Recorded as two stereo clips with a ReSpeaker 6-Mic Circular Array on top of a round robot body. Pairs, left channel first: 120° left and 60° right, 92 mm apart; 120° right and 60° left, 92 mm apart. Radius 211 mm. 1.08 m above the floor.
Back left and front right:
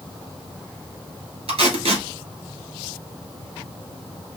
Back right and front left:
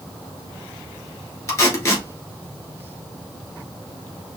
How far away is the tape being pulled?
About 2 m.